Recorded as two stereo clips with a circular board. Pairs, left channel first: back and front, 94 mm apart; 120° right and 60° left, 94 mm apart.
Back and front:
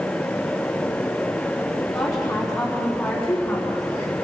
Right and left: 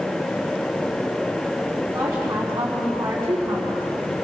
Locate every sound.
1.9 s a woman speaking: 120° left, 3.5 m